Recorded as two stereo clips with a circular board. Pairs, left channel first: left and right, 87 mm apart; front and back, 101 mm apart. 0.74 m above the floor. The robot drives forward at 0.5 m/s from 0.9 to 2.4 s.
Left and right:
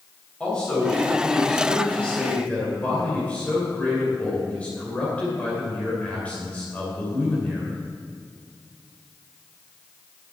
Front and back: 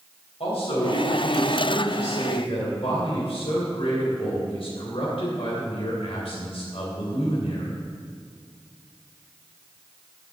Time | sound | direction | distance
0.4 | a man speaking | 15° left | 3.5 m